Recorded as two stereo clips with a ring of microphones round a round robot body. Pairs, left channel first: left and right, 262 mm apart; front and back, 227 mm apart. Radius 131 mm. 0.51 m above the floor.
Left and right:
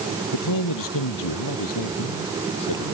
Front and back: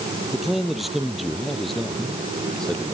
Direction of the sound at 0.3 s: 90° left.